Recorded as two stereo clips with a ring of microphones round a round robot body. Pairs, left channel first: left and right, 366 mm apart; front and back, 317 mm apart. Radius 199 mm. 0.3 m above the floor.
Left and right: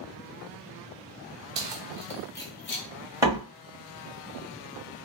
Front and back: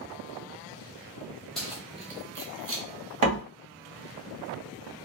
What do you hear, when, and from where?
1.6 s keys jangling: 90° right, 0.8 m; by 2.9 s 135° left, 0.9 m
3.2 s a door slam: 170° right, 1.7 m